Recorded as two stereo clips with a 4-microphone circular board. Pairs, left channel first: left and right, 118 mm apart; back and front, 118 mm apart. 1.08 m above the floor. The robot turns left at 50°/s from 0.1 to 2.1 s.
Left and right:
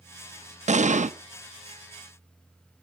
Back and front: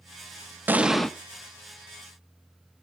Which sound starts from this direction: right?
An explosion, at 0.7 s.